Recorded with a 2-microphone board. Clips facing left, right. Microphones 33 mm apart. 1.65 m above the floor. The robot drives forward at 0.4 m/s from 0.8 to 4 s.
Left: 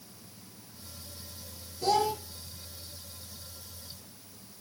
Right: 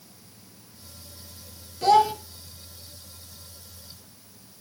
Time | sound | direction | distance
1.8 | a child speaking | 55° right (ahead or behind) | 0.9 m